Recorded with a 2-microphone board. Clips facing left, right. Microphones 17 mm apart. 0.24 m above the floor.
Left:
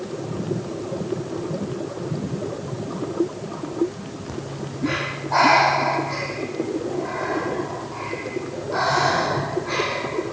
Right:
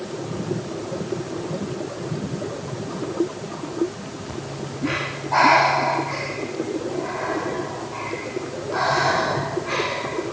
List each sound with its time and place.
4.3 s breathing: 15° left (ahead or behind), 4 m